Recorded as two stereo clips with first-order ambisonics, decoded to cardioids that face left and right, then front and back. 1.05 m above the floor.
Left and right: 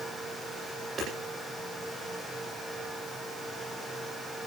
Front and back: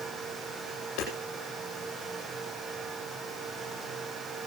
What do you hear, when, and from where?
1.0 s hammering: 20° right, 10 m